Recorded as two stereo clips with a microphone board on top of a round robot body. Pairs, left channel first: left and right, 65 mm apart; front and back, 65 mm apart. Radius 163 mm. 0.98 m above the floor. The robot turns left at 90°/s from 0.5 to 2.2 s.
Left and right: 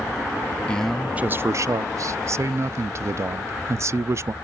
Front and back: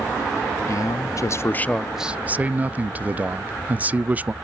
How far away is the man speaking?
About 0.5 m.